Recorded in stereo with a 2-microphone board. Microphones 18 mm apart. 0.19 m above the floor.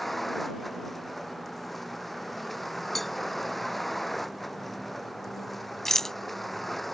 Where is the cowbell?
10° left (ahead or behind).